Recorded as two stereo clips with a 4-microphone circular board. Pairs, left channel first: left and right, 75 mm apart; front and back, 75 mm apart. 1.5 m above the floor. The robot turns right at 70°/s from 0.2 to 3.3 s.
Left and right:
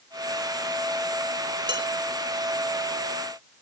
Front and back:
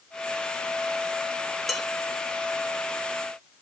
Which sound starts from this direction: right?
Dishes clattering, at 1.7 s.